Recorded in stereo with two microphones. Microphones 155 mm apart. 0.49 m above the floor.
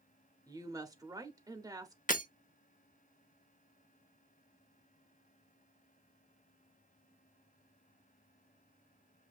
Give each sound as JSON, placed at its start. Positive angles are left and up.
{"t": 0.5, "sound": "a woman speaking", "side_deg": -20, "distance_m": 0.8}
{"t": 2.1, "sound": "breaking glass", "side_deg": 60, "distance_m": 0.7}